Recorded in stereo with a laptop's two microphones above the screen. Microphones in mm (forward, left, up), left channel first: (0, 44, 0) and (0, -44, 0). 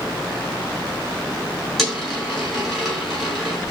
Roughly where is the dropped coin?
Centre.